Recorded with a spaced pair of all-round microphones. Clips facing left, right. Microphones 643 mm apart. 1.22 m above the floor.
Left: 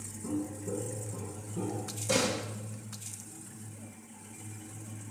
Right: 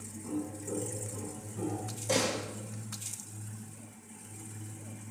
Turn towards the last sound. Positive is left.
turn(degrees=35)  # may be behind; listen again after turning